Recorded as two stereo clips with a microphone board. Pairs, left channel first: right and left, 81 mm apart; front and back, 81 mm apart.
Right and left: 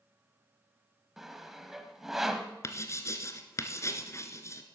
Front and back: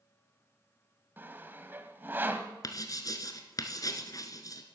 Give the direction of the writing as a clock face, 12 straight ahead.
1 o'clock.